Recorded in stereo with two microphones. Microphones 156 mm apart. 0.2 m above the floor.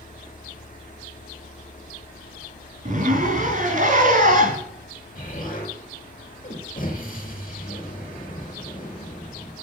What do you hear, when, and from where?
2.9 s a zipper: 60° right (ahead or behind), 2.5 m
5.2 s an explosion: 60° left (ahead or behind), 3 m